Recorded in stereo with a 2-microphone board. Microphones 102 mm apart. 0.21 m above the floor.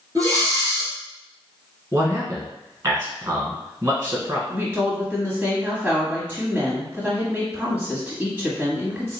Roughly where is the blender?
I don't hear a blender.